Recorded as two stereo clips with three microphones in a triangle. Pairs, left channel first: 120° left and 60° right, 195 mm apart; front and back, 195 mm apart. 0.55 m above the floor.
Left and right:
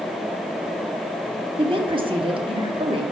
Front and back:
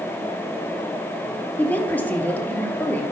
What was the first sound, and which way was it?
A woman speaking, 70° right.